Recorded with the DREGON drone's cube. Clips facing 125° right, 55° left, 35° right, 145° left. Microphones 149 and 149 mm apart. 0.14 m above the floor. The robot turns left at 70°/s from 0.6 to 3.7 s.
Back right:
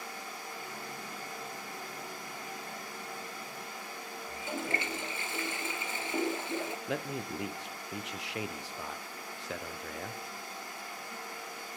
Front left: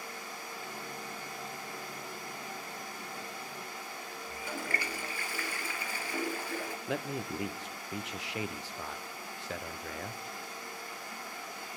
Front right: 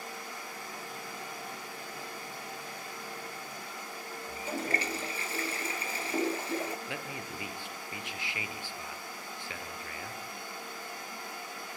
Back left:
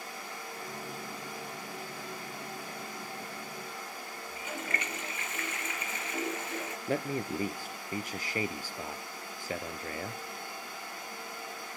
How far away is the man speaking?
About 1.4 m.